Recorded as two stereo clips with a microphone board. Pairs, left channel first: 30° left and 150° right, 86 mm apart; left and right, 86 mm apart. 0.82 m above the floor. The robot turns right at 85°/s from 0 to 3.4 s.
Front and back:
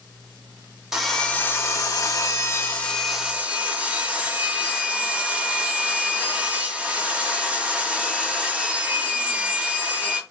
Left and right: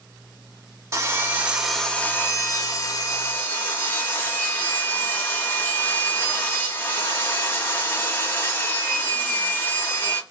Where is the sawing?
65° right, 0.5 m; by 10.2 s 145° left, 0.5 m.